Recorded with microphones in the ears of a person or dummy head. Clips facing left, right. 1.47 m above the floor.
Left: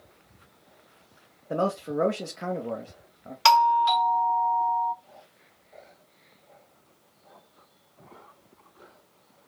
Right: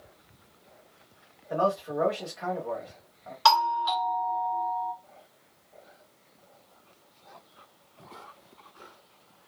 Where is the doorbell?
30° left (ahead or behind), 0.5 m.